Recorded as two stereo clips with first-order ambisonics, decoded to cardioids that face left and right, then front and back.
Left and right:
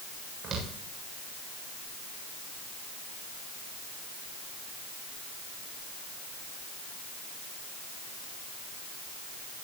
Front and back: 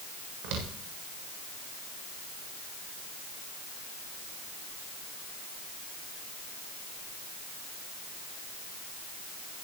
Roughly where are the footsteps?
Behind right.